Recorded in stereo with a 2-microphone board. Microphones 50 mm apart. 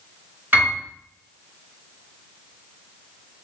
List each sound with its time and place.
0.5 s a piano: 40° right (ahead or behind), 2.5 m